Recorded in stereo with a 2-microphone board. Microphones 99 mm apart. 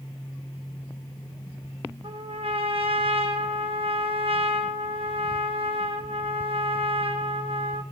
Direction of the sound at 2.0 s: 70° right (ahead or behind).